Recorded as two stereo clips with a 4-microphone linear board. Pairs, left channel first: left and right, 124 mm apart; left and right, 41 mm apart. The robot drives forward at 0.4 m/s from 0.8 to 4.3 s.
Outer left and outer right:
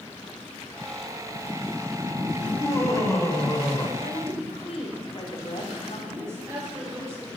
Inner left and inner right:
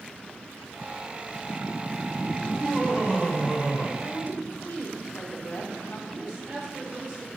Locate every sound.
2.4 s laughter: 20° left (ahead or behind), 4.5 m
4.0 s a woman speaking: 50° left (ahead or behind), 4 m
6.1 s a woman speaking: 25° right (ahead or behind), 6 m